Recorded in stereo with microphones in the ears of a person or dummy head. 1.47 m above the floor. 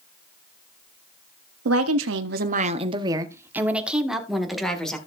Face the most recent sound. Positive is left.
turn(degrees=0)  # may be behind; listen again after turning